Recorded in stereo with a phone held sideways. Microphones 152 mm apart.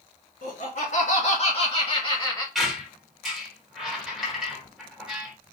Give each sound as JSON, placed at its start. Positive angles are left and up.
{"t": 0.4, "sound": "laughter", "side_deg": 55, "distance_m": 1.5}
{"t": 2.5, "sound": "a squeak", "side_deg": 0, "distance_m": 1.1}